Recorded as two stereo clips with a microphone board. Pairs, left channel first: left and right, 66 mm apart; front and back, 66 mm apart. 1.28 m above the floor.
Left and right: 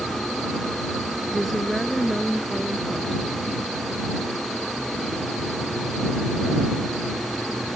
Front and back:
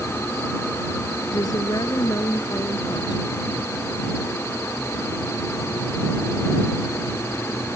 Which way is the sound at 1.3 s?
Straight ahead.